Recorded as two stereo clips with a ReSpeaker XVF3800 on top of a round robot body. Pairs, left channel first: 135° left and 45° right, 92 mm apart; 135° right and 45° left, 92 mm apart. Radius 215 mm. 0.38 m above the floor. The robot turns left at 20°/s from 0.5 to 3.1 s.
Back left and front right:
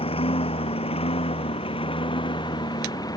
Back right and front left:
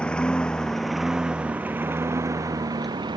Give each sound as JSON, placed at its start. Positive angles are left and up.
{"t": 0.0, "sound": "a lawn mower", "azimuth_deg": 145}